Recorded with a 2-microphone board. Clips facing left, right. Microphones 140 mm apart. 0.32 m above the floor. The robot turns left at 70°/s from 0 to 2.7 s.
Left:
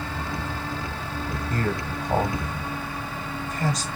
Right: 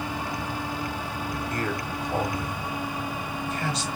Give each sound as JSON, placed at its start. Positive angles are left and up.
{"t": 1.5, "sound": "a man speaking", "side_deg": 30, "distance_m": 1.6}